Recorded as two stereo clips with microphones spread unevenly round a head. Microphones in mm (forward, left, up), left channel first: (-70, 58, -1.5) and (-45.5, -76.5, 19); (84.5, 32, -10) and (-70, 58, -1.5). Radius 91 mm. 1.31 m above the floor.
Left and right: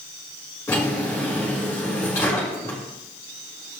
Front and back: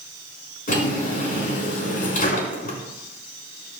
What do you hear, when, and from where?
0.7 s a drawer: 25° left, 5 m